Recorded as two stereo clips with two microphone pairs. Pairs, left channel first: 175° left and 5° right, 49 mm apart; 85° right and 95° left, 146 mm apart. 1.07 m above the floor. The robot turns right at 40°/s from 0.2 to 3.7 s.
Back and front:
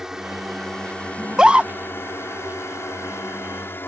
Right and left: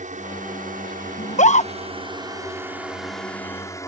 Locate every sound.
0.0 s a drone: 70° left; by 3.9 s 155° right
1.2 s a scream: 90° right; by 1.7 s 70° right